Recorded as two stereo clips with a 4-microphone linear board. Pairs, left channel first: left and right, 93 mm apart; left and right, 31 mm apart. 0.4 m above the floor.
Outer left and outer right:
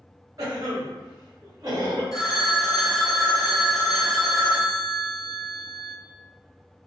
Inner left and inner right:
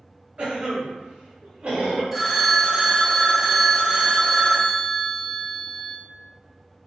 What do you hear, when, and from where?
0.4 s a cough: 40° right (ahead or behind), 1.8 m
2.1 s a phone ringing: 5° right (ahead or behind), 0.9 m